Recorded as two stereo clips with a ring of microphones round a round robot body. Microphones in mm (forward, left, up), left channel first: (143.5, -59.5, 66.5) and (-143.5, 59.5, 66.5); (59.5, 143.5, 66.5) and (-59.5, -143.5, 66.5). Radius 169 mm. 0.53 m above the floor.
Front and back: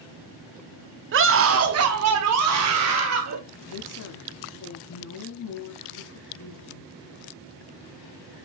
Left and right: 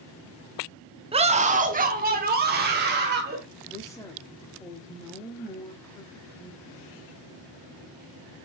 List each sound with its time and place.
1.1 s a scream: 175° right, 0.8 m; by 3.4 s 170° right, 1.9 m
3.6 s a woman speaking: 10° right, 1.0 m